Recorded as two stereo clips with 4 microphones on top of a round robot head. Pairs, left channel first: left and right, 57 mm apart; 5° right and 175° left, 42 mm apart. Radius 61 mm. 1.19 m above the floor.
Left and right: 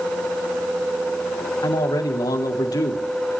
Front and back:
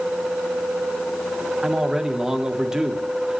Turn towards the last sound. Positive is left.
turn(degrees=100)